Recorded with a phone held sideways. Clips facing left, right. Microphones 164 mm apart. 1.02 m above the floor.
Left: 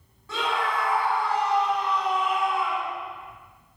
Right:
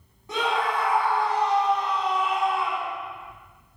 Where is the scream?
15° right (ahead or behind), 7 m; by 3.0 s 25° right (ahead or behind), 8 m.